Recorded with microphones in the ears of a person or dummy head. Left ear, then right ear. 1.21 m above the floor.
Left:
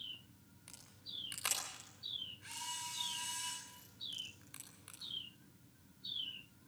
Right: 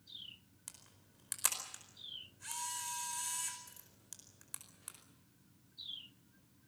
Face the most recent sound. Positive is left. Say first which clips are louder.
# left 9 dB
turn(degrees=-40)  # may be behind; listen again after turning